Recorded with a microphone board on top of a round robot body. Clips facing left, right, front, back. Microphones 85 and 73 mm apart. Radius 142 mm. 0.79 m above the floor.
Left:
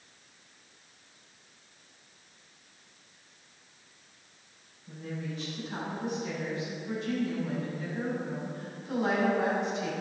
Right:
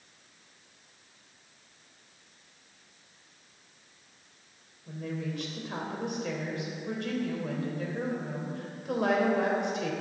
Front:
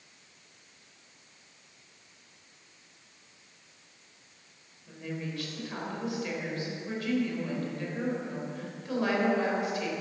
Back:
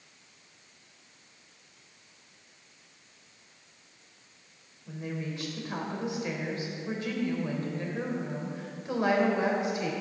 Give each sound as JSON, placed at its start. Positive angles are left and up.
{"t": 4.9, "sound": "a woman speaking", "azimuth_deg": -115, "distance_m": 4.0}